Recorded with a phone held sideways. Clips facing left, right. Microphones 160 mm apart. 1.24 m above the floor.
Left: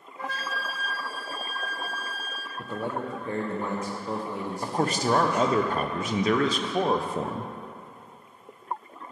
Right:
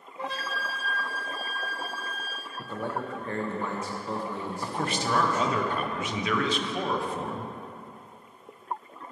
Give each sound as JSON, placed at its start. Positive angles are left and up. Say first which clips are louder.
{"t": 0.2, "sound": "a flute", "louder": "even", "side_deg": -25, "distance_m": 0.7}
{"t": 2.6, "sound": "a man speaking", "louder": "left 2 dB", "side_deg": 15, "distance_m": 0.6}
{"t": 4.6, "sound": "a man speaking", "louder": "left 5 dB", "side_deg": 40, "distance_m": 0.5}